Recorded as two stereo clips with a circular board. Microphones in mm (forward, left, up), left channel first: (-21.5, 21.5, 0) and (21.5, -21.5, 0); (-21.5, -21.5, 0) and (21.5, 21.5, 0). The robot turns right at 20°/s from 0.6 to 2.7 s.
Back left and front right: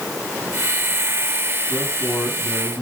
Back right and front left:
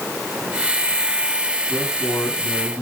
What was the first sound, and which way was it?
A man speaking, straight behind.